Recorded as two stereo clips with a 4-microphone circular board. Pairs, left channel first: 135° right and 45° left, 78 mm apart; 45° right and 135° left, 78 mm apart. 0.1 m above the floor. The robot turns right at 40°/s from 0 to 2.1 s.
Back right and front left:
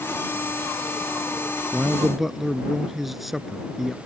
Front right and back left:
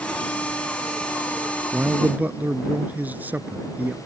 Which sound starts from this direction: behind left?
A man speaking, at 1.7 s.